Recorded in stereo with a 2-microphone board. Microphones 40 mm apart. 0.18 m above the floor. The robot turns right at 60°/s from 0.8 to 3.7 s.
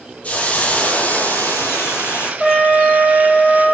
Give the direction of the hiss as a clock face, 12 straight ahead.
11 o'clock.